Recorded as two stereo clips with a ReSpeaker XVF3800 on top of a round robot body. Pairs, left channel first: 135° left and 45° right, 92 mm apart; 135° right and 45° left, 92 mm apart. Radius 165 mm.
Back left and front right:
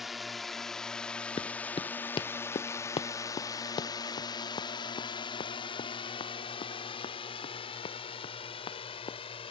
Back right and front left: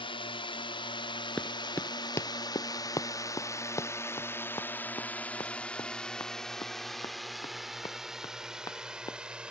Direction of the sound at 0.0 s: 135° right.